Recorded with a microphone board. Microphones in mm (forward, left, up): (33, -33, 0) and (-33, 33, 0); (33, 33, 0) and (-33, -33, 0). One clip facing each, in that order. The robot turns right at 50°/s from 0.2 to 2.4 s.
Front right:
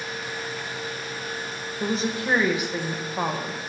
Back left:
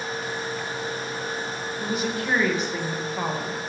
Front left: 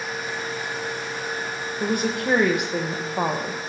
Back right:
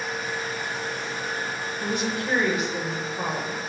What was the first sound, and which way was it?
A woman speaking, straight ahead.